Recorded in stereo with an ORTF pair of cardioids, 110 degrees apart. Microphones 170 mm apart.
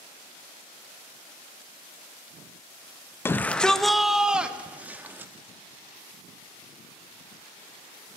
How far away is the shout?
About 0.7 m.